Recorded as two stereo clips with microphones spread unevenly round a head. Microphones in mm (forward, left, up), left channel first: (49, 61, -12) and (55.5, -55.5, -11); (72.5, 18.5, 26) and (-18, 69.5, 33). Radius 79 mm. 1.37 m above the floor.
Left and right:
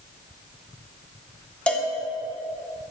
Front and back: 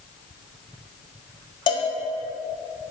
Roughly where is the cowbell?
Ahead.